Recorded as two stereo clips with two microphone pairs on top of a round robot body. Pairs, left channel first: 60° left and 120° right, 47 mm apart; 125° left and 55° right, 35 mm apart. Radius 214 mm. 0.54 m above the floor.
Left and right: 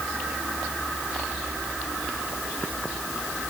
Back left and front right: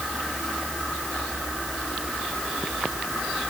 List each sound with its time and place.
Only background noise.